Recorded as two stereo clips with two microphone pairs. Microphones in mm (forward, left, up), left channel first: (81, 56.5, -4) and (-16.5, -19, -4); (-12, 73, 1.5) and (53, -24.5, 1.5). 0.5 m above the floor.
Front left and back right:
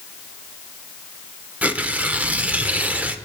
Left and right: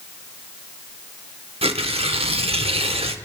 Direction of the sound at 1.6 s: 65° right.